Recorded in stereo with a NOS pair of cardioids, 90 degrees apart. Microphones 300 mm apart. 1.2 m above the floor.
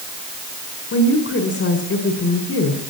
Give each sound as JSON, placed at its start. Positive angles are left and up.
{"t": 0.9, "sound": "a woman speaking", "azimuth_deg": 45, "distance_m": 5.5}